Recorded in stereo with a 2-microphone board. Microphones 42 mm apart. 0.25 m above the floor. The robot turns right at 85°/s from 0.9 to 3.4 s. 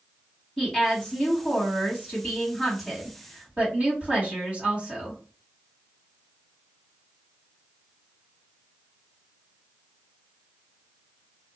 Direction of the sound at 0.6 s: 15° left.